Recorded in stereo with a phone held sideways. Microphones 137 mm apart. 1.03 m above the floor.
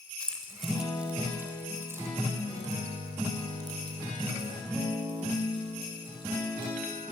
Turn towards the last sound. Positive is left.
turn(degrees=-35)  # may be behind; listen again after turning